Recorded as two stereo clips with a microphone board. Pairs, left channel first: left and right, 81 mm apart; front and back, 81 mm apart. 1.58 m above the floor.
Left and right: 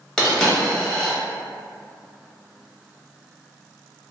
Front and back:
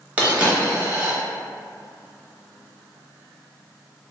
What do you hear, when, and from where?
0.2 s a dropped coin: 160° left, 0.9 m